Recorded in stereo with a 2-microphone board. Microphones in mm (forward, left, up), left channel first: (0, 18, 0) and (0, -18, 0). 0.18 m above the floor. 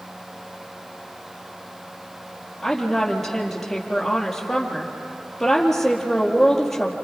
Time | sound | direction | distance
2.6 | a woman speaking | 5° left (ahead or behind) | 4 m